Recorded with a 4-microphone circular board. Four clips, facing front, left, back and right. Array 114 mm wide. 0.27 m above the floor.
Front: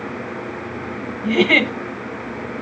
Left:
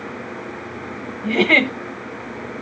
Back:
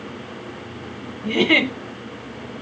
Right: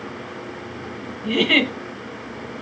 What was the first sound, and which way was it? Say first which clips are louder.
A giggle: left 2 dB, front 2 dB; 75° left.